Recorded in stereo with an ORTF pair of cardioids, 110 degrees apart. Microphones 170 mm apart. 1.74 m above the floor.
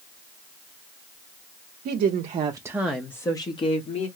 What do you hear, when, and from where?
1.9 s a woman speaking: 65° right, 0.8 m; by 4.1 s 40° left, 1.3 m